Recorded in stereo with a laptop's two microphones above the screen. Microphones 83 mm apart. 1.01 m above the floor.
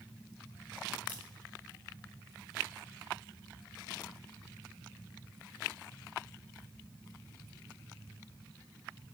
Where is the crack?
75° right (ahead or behind), 1.7 m.